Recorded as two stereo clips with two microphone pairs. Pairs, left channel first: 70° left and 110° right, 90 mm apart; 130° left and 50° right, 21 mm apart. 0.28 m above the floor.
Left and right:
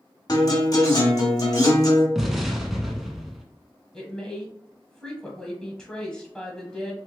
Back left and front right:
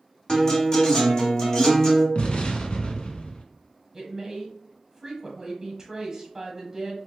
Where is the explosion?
160° left, 0.7 m.